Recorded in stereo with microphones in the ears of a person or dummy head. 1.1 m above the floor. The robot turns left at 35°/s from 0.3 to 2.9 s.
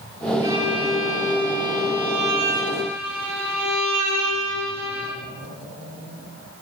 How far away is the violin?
About 3 m.